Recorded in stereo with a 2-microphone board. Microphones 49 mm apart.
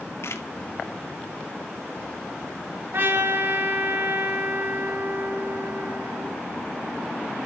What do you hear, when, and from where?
0.2 s a camera shutter: 65° left (ahead or behind), 2 m
2.9 s a trumpet: 50° right (ahead or behind), 3.5 m